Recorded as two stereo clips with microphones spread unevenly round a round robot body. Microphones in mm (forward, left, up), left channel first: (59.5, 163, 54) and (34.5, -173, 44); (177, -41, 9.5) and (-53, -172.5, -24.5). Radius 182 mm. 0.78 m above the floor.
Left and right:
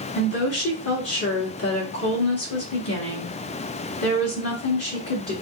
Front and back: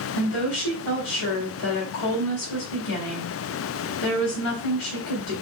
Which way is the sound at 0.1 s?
35° left.